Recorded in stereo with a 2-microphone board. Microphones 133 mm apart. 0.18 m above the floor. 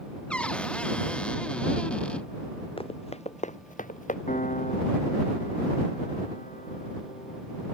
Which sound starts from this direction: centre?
A cupboard door, at 0.3 s.